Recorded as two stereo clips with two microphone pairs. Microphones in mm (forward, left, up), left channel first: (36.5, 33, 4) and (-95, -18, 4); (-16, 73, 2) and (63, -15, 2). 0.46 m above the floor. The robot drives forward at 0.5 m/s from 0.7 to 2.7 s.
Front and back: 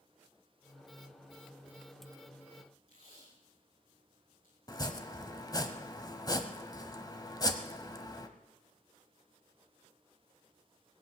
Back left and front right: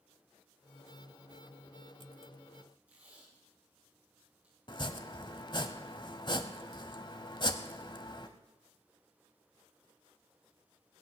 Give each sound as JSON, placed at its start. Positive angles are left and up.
{"t": 2.9, "sound": "tape being pulled", "azimuth_deg": 30, "distance_m": 7.0}
{"t": 4.7, "sound": "chopping", "azimuth_deg": 85, "distance_m": 1.2}